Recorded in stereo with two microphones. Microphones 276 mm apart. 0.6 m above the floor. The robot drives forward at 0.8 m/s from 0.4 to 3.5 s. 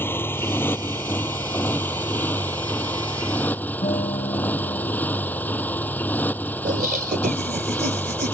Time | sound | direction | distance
0.0 | a motorcycle | 5° left (ahead or behind) | ?
3.8 | a guitar | 25° left (ahead or behind) | ?
6.7 | laughter | 30° right (ahead or behind) | ?